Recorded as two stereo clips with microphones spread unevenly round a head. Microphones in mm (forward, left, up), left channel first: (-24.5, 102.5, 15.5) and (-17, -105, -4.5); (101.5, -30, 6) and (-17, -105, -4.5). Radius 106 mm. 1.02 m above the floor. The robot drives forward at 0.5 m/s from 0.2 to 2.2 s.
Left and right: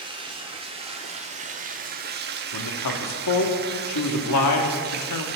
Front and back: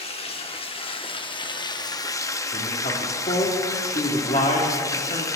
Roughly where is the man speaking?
Left.